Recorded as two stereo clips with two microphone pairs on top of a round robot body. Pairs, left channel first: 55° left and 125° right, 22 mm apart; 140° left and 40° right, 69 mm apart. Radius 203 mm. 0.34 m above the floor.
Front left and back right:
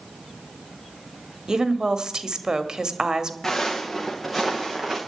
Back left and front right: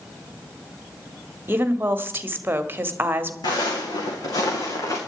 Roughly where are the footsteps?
Behind left.